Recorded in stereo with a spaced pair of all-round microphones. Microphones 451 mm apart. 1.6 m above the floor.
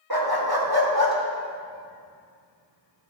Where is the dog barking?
50° right (ahead or behind), 1.9 m; by 3.1 s 35° right (ahead or behind), 2.5 m.